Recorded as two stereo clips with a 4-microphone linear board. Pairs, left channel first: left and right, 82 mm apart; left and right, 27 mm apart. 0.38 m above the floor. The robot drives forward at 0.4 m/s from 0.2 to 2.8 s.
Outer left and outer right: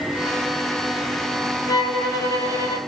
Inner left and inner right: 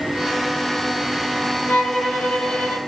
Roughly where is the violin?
Left.